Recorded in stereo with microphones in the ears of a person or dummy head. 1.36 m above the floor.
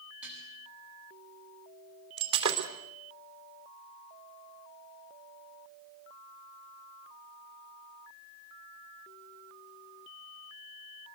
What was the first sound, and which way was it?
Dishes clattering, 10° right (ahead or behind).